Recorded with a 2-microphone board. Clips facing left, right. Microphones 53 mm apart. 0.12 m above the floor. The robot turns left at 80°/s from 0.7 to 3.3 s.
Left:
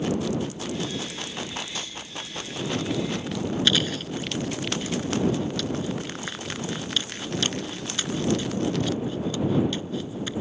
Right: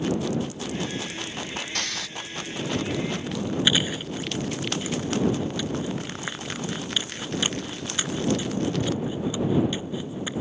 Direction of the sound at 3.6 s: 15° right (ahead or behind).